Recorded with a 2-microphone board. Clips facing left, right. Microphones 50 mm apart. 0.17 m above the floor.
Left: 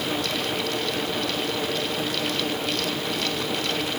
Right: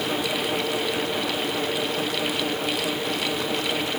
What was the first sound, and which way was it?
Only background noise.